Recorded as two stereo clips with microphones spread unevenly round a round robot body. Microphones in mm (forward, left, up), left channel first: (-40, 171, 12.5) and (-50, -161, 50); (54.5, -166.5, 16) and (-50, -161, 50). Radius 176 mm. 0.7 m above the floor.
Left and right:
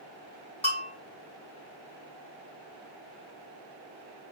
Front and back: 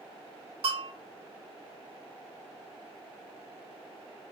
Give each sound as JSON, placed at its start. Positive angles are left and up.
{"t": 0.6, "sound": "a bell", "azimuth_deg": 160, "distance_m": 2.5}